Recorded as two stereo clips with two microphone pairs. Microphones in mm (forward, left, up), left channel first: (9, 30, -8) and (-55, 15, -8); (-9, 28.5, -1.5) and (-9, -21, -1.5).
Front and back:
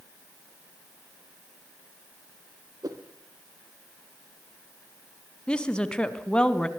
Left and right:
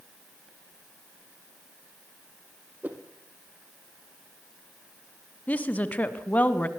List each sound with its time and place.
2.8 s a whoosh: 145° right, 3 m
5.5 s a woman speaking: 80° left, 1.6 m